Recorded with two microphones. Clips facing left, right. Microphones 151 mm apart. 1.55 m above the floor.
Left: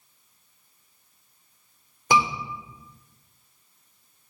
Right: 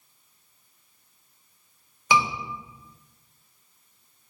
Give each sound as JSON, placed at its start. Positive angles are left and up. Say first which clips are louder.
{"t": 2.1, "sound": "a scream", "louder": "left 1 dB", "side_deg": 50, "distance_m": 4.0}